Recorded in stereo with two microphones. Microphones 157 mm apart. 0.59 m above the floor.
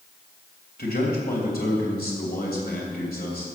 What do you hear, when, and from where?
0.8 s a man speaking: 70° left (ahead or behind), 3 m